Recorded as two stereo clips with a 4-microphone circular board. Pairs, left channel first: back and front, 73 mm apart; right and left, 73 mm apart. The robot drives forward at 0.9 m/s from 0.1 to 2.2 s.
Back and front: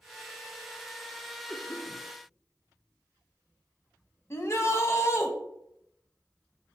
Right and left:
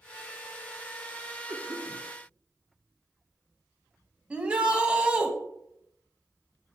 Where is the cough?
115° left, 2.5 m; by 2.0 s 125° left, 3 m.